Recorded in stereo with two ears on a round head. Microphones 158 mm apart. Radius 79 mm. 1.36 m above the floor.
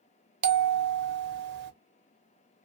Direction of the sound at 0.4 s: 65° right (ahead or behind).